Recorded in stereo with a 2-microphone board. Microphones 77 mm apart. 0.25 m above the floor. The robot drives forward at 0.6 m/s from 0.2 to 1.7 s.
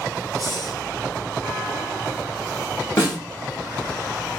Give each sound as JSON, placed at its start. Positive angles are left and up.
{"t": 0.4, "sound": "breathing", "side_deg": 60, "distance_m": 1.1}
{"t": 3.0, "sound": "a snare drum", "side_deg": 40, "distance_m": 2.0}